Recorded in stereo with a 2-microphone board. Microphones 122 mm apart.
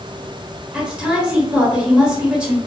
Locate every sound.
0.7 s a woman speaking: 10° right (ahead or behind), 1.4 m